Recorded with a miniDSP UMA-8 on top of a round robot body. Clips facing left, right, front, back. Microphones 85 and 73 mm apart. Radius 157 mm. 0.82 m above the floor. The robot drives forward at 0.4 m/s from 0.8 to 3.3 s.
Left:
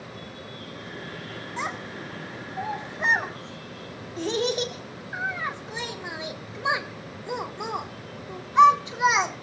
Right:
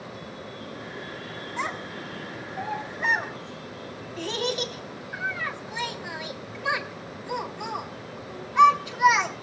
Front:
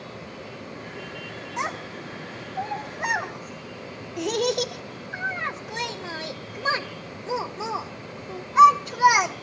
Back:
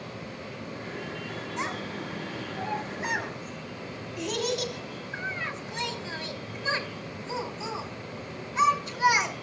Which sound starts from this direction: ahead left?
A child speaking, at 1.6 s.